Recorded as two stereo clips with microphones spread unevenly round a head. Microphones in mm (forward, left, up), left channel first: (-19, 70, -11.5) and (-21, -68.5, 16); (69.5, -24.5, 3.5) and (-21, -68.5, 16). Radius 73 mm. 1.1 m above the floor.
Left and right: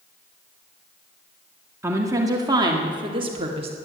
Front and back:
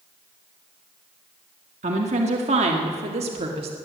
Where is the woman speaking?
165° right, 1.7 m; by 3.8 s 135° right, 2 m.